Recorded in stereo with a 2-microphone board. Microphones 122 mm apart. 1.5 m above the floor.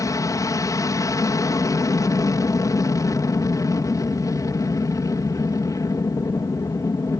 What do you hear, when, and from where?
0.0 s an aircraft: 30° left (ahead or behind)